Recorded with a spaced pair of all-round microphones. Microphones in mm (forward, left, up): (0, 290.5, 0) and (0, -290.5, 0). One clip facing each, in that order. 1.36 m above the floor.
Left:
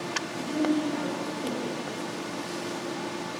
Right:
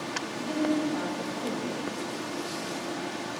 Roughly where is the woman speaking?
Right.